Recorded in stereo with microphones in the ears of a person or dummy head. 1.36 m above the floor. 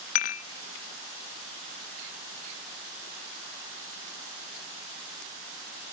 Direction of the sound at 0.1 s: 45° left (ahead or behind).